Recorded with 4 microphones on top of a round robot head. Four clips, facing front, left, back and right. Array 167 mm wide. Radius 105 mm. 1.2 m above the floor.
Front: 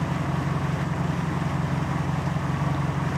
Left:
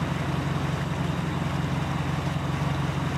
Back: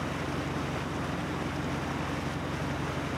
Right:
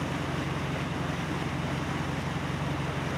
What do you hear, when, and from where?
0.0 s an engine running: 20° left